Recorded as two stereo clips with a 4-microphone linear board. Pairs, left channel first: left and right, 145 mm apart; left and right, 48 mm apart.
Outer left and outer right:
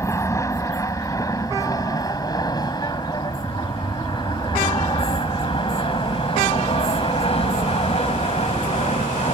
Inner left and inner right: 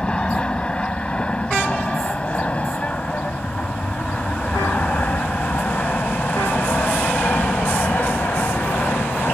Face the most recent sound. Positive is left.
turn(degrees=45)  # may be behind; listen again after turning